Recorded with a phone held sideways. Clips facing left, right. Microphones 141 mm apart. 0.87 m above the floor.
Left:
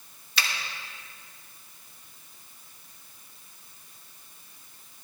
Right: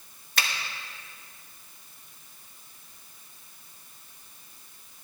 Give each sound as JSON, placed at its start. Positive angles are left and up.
{"t": 0.4, "sound": "a finger snap", "side_deg": -50, "distance_m": 1.2}